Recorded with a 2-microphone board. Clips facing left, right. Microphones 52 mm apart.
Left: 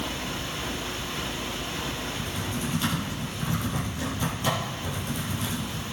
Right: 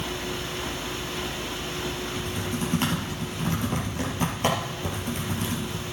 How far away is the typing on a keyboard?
About 5 m.